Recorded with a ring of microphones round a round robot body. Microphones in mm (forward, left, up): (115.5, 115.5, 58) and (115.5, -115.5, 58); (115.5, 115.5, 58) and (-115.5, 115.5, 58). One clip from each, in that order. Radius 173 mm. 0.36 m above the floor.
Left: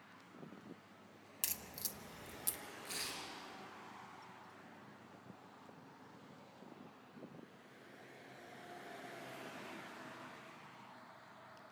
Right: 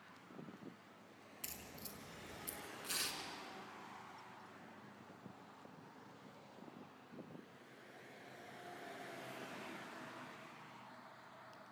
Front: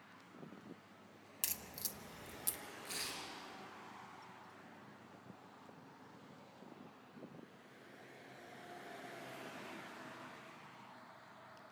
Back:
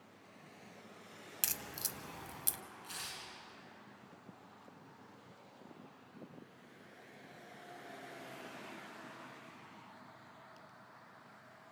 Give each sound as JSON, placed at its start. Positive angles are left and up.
{"t": 1.4, "sound": "a crack", "azimuth_deg": 120, "distance_m": 1.0}
{"t": 2.8, "sound": "tearing paper", "azimuth_deg": -120, "distance_m": 3.5}